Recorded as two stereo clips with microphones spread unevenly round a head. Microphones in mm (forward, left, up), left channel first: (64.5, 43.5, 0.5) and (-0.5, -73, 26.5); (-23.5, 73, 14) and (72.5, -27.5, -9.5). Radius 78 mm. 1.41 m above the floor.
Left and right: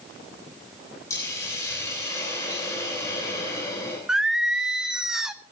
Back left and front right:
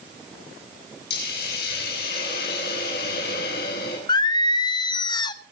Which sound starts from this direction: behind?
Singing, at 4.1 s.